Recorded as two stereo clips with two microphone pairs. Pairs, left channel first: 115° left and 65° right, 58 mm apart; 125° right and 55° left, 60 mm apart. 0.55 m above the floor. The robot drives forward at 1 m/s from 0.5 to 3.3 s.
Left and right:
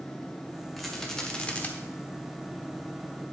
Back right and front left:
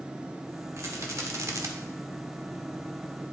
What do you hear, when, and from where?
0.8 s a rattle: 30° left, 1.6 m; by 1.7 s 60° left, 1.0 m